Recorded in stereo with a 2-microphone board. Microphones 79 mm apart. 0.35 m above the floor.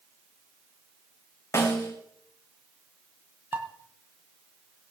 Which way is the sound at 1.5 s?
40° left (ahead or behind).